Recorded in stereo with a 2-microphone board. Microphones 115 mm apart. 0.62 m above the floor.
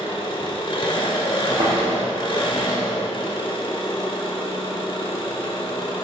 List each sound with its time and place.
0.0 s an engine running: 45° left (ahead or behind), 2.5 m
1.6 s a thud: 60° right (ahead or behind), 4 m